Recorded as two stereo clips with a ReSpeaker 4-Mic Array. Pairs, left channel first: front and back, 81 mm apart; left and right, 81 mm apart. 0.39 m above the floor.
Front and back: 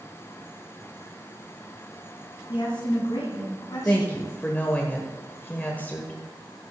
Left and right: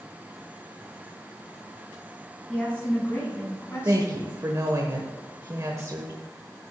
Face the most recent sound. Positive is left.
turn(degrees=-60)